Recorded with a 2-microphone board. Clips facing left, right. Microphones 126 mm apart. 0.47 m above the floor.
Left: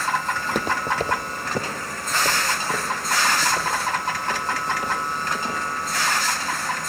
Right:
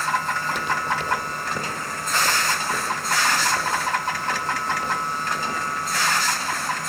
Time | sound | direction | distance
0.4 | footsteps | 55° left (ahead or behind) | 0.9 m